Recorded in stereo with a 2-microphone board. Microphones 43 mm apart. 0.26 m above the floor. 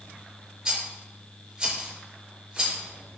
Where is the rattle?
25° right (ahead or behind), 4 m.